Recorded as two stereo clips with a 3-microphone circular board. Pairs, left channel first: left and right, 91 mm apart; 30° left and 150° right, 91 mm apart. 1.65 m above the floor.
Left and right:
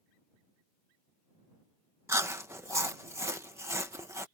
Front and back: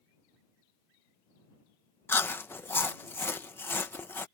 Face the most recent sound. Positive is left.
turn(degrees=-35)